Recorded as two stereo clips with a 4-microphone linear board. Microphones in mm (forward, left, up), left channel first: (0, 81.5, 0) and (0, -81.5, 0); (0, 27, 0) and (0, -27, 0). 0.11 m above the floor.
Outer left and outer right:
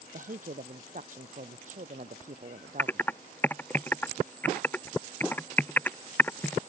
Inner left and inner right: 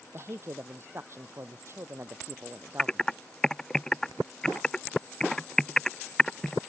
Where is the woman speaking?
55° right (ahead or behind).